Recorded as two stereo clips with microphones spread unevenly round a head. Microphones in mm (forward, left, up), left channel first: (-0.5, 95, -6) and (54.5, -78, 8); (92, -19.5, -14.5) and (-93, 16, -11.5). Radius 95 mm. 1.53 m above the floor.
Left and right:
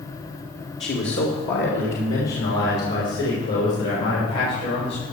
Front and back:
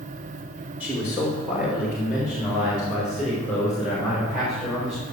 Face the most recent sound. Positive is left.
turn(degrees=85)